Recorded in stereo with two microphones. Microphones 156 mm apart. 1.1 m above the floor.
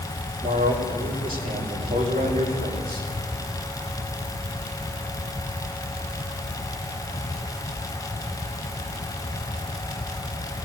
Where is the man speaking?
75° right (ahead or behind), 5.5 m.